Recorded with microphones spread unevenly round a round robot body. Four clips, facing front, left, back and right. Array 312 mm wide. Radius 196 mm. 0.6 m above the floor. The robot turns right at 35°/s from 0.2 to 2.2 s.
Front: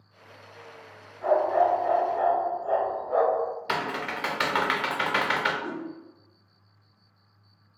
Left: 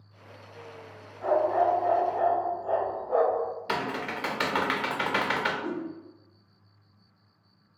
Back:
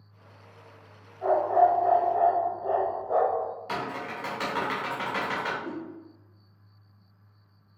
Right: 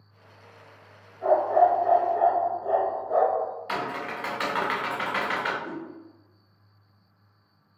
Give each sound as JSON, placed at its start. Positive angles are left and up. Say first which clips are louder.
{"t": 1.2, "sound": "a dog barking", "louder": "right 4 dB, back 1 dB", "azimuth_deg": 150, "distance_m": 0.6}
{"t": 3.7, "sound": "typing on a keyboard", "louder": "even, front 3 dB", "azimuth_deg": 35, "distance_m": 0.7}
{"t": 5.6, "sound": "a whoosh", "louder": "left 3 dB, front 2 dB", "azimuth_deg": 40, "distance_m": 0.8}